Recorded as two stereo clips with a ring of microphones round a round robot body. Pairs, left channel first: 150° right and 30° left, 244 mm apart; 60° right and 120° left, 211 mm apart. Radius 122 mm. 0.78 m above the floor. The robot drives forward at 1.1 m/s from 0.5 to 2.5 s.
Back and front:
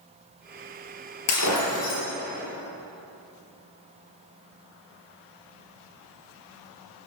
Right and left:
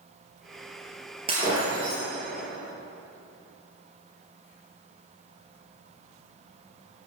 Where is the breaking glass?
170° right, 4 m.